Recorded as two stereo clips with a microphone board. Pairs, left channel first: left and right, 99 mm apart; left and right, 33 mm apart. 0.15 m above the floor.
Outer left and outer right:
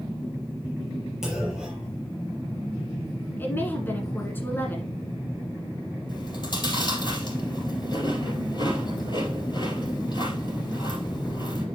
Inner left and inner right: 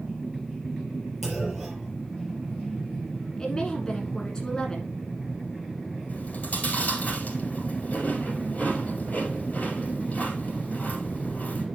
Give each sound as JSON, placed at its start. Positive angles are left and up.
{"t": 1.2, "sound": "a clunk", "side_deg": -5, "distance_m": 4.5}
{"t": 3.4, "sound": "a woman speaking", "side_deg": 20, "distance_m": 1.5}
{"t": 6.1, "sound": "chewing", "side_deg": 45, "distance_m": 4.0}